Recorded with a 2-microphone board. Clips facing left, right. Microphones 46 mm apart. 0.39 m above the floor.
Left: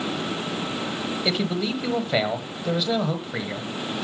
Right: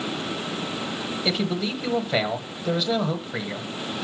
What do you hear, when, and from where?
1.2 s a man speaking: 5° left (ahead or behind), 1.7 m